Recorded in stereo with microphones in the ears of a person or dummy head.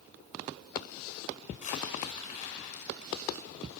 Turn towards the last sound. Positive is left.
turn(degrees=40)  # may be behind; listen again after turning